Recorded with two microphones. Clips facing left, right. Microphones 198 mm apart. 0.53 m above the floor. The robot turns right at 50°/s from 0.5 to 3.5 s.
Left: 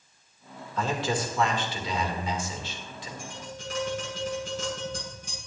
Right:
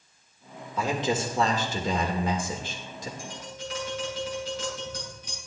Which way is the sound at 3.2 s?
65° left (ahead or behind).